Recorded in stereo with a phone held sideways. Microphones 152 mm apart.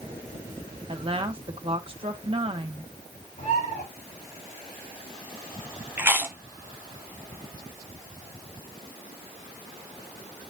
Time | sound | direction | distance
0.9 | a woman speaking | 35° right (ahead or behind) | 1.3 m
3.4 | a bird | 55° left (ahead or behind) | 3 m
6.0 | chewing | 15° right (ahead or behind) | 1.0 m